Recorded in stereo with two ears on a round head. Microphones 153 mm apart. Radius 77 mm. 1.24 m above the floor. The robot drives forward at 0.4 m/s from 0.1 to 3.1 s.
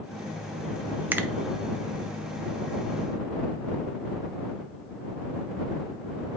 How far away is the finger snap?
About 0.5 m.